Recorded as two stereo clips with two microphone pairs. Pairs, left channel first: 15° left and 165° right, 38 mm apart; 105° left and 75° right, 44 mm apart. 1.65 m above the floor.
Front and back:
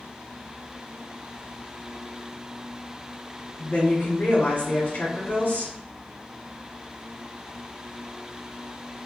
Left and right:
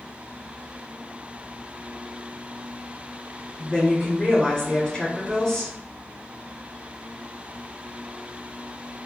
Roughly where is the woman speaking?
Ahead left.